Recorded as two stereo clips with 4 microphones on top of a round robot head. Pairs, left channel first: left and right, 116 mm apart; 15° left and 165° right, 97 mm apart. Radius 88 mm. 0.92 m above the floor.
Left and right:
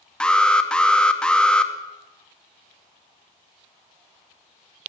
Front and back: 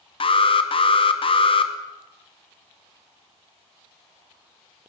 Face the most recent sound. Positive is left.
turn(degrees=10)